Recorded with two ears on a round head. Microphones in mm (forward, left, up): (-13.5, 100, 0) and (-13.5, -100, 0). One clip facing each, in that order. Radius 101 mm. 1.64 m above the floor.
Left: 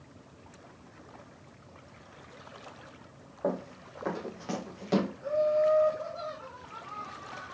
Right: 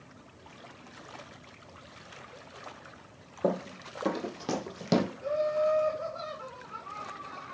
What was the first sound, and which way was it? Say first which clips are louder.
Running footsteps: right 3 dB; 40° right (ahead or behind).